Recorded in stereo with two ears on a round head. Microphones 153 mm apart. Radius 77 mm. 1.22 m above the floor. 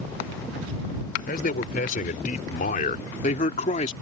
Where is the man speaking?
50° left (ahead or behind); by 3.9 s 40° left (ahead or behind).